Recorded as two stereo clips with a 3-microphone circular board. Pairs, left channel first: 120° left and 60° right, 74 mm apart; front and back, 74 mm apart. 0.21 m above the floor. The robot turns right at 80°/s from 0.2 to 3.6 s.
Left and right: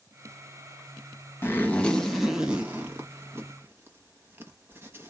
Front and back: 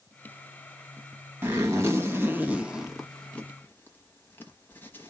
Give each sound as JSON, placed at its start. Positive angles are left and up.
{"t": 1.4, "sound": "a zipper", "azimuth_deg": 145, "distance_m": 1.0}